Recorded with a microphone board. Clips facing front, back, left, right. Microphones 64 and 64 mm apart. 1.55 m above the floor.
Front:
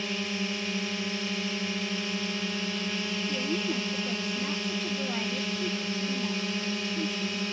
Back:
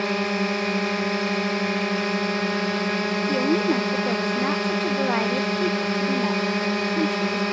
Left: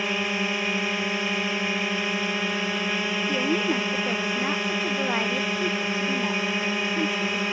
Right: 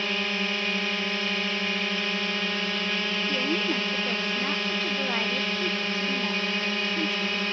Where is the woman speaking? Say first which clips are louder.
Back 11 dB, left 4 dB; 160° left.